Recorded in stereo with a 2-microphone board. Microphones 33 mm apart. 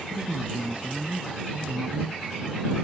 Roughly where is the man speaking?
Right.